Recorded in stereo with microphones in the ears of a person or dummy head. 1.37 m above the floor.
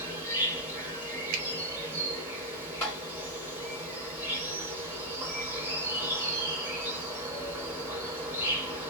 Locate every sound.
0.0 s an insect: 15° right (ahead or behind), 1.2 m
1.3 s a finger snap: 55° right (ahead or behind), 1.3 m
2.8 s tapping: 15° left (ahead or behind), 0.9 m